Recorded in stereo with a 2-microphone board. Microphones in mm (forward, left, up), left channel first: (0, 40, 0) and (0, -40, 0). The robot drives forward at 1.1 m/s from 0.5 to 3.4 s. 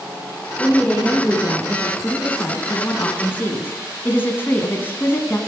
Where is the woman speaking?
10° left (ahead or behind), 3.5 m; by 5.4 s 25° left (ahead or behind), 1.5 m.